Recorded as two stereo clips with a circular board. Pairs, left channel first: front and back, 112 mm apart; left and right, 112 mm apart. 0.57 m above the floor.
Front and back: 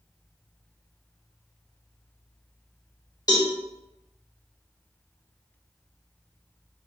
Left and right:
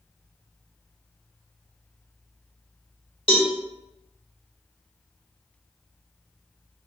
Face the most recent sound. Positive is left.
turn(degrees=55)